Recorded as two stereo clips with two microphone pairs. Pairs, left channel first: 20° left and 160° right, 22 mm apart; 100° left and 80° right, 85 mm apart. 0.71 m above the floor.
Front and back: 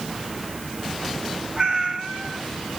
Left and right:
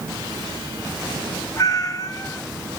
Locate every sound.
1.6 s a cat meowing: 145° left, 2 m